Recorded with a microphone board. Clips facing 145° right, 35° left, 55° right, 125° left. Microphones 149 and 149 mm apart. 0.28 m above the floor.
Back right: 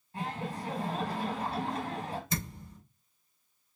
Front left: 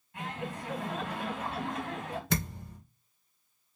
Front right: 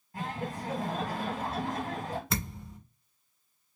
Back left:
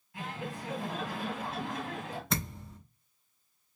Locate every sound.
0.1 s laughter: 95° right, 1.9 m
2.3 s a thud: 30° left, 1.8 m